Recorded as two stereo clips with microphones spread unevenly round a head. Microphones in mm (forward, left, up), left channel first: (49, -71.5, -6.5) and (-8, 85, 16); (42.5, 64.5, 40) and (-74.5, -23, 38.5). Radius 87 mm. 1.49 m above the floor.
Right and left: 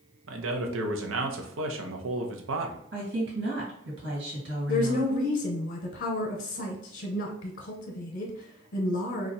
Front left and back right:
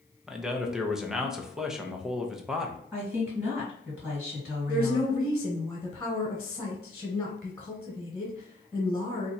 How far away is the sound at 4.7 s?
About 0.9 m.